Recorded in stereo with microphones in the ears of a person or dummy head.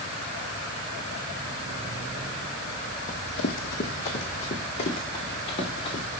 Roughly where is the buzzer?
I don't hear a buzzer.